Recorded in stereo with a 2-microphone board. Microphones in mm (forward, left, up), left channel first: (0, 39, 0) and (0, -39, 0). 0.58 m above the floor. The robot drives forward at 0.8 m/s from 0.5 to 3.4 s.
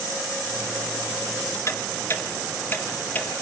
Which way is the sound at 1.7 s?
40° left (ahead or behind).